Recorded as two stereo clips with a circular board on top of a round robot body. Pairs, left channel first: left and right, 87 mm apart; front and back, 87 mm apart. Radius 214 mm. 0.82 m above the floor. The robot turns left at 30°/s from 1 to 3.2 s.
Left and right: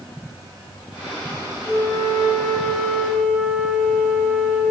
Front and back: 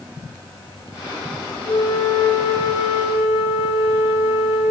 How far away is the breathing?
I don't hear breathing.